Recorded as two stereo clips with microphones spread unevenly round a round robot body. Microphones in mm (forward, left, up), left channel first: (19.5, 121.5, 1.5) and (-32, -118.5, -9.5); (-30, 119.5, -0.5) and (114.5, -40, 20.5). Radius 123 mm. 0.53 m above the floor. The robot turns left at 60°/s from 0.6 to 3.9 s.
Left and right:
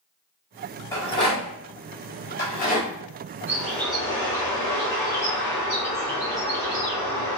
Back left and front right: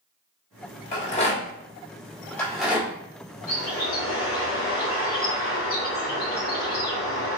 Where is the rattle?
150° left, 1.4 m; by 2.9 s 35° left, 1.4 m.